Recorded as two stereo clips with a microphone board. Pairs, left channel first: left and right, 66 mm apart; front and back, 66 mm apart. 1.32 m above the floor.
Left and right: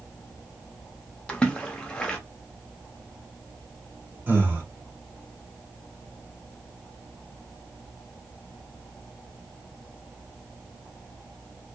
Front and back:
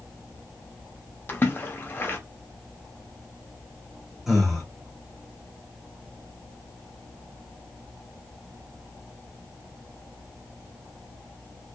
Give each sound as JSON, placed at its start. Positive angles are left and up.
{"t": 1.3, "sound": "a splash", "azimuth_deg": 30, "distance_m": 0.7}
{"t": 4.3, "sound": "breathing", "azimuth_deg": -95, "distance_m": 1.1}